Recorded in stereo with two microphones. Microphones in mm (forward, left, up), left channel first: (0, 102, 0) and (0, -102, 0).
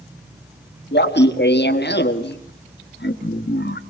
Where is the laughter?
55° left (ahead or behind), 1.6 m.